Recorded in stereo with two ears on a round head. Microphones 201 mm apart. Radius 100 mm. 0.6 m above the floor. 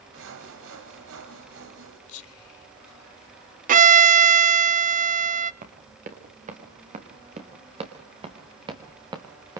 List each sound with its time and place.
0.1 s sawing: 60° right (ahead or behind), 3 m
2.1 s whispering: 70° left (ahead or behind), 4 m
3.7 s a violin: 35° right (ahead or behind), 0.7 m
5.6 s running footsteps: 40° right (ahead or behind), 5 m; by 9.6 s 15° right (ahead or behind), 3.5 m